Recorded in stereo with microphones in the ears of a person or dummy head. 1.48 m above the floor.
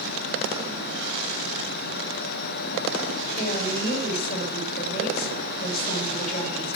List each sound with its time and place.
3.4 s a woman speaking: 35° left (ahead or behind), 5 m